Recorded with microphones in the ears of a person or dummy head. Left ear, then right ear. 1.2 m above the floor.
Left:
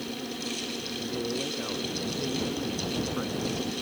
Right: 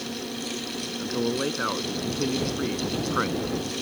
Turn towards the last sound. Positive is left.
turn(degrees=-50)  # may be behind; listen again after turning